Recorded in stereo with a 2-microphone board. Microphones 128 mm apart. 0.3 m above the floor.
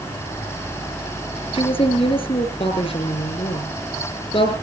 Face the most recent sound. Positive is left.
turn(degrees=45)  # may be behind; listen again after turning